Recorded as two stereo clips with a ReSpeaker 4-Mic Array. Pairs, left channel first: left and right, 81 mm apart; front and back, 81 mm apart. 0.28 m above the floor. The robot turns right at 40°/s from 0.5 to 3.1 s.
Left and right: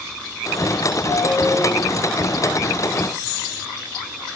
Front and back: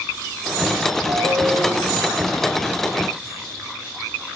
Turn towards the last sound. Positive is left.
turn(degrees=-130)